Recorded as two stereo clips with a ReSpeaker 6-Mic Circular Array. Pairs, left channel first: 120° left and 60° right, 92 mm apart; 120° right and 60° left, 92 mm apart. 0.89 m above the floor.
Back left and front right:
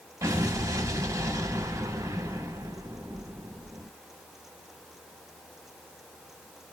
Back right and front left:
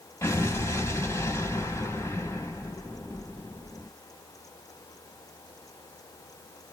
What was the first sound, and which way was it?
An explosion, 80° right.